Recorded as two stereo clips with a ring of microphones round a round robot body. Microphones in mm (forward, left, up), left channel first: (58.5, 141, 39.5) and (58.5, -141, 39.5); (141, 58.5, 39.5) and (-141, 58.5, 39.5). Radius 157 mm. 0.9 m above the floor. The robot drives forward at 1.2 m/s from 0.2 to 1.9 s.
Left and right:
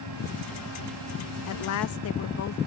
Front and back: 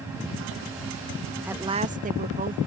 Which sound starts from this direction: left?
A woman speaking, at 1.4 s.